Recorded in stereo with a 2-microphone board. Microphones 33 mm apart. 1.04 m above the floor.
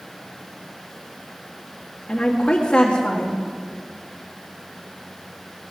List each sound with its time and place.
2.1 s a woman speaking: 30° left (ahead or behind), 1.4 m